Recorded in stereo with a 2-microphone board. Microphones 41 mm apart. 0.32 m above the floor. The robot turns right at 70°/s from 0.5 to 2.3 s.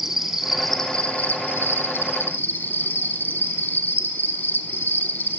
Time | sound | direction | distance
0.0 | an insect | 10° right | 0.8 m